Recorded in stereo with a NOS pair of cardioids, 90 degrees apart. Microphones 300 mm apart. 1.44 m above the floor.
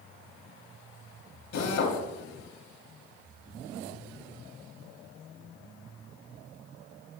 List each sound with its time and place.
1.5 s a drill: 65° left, 3 m